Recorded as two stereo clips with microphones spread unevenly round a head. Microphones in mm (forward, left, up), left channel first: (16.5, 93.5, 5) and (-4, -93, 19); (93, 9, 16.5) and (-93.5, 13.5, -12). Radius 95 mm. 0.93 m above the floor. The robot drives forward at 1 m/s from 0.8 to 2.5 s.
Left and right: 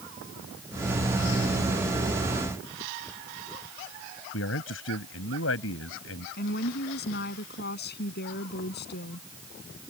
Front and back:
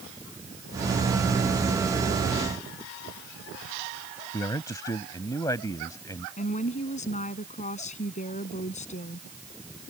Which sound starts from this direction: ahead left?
A woman speaking, at 6.4 s.